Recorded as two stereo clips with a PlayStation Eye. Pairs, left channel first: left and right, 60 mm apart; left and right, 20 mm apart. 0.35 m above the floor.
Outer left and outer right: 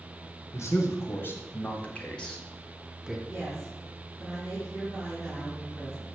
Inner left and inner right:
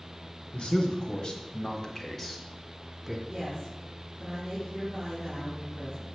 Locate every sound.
0.5 s a man speaking: 55° left (ahead or behind), 2 m; by 3.2 s 5° right (ahead or behind), 2 m
3.3 s a woman speaking: 5° right (ahead or behind), 4.5 m